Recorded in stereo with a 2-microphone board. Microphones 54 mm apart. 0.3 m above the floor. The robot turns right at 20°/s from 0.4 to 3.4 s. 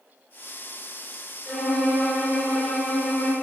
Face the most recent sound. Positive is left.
turn(degrees=35)